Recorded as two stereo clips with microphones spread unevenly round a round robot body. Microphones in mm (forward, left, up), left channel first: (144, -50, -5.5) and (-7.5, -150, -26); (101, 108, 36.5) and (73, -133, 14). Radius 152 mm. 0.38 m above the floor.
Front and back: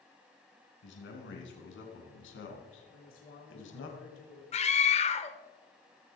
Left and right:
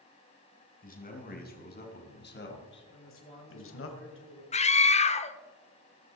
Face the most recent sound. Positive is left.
turn(degrees=40)